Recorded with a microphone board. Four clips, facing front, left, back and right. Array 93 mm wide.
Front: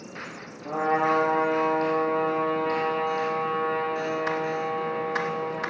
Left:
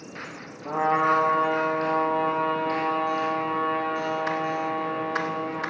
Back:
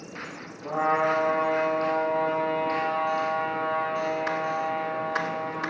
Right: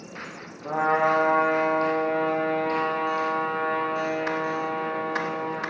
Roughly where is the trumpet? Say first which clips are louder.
Even, even; right.